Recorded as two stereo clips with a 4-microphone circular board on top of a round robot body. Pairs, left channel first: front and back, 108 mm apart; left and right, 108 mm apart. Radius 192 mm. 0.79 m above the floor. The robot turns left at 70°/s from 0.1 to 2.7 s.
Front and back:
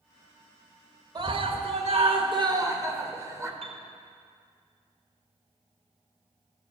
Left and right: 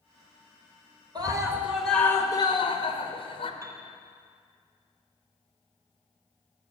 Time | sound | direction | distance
1.1 | a scream | 135° right | 1.7 m
3.6 | a piano | 150° right | 1.5 m